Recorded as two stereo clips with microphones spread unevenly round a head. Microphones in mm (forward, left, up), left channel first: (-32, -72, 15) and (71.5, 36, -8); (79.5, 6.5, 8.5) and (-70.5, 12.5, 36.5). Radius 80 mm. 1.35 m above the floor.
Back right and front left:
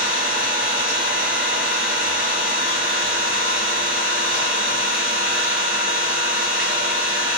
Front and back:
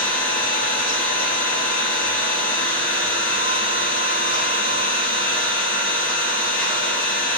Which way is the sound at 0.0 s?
15° left.